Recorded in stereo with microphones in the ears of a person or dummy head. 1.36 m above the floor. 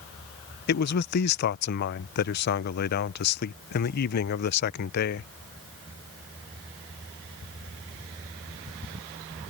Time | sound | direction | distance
0.7 | a man speaking | 55° left (ahead or behind) | ?